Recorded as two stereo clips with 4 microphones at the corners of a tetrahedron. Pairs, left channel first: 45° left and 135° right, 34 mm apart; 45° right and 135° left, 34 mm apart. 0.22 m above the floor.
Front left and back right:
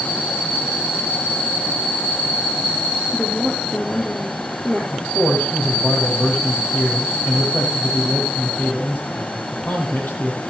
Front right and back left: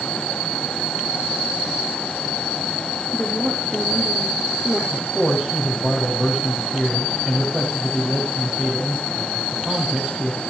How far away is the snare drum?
I don't hear a snare drum.